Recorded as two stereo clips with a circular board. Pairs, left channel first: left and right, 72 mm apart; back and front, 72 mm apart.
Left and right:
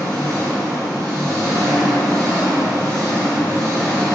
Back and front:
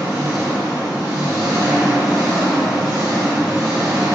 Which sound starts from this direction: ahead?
An engine running, at 0.0 s.